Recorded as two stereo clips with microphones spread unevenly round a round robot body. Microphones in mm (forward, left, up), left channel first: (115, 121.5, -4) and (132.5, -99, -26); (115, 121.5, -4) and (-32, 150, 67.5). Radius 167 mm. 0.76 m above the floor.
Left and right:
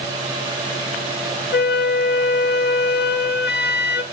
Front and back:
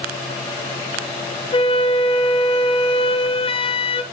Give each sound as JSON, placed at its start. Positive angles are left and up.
{"t": 1.5, "sound": "a flute", "azimuth_deg": 55, "distance_m": 1.0}